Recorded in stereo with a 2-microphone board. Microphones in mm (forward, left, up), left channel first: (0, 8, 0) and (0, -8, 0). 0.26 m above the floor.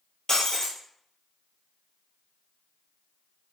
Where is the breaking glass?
45° left (ahead or behind), 1.0 m.